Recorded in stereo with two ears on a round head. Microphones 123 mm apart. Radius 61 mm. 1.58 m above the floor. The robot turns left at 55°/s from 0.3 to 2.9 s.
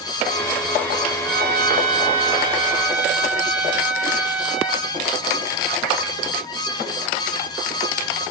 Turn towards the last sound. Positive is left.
turn(degrees=-175)